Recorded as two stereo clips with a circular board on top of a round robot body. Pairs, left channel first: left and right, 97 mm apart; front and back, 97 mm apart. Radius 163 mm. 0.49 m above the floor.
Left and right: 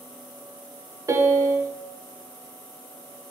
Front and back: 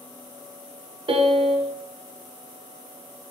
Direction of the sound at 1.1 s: 150° right.